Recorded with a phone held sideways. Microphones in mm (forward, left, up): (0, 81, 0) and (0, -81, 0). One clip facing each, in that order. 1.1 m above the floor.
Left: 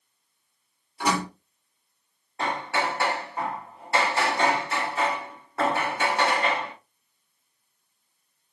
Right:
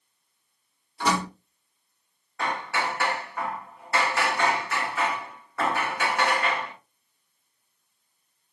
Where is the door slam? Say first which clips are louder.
Even; 10° left (ahead or behind), 1.3 m.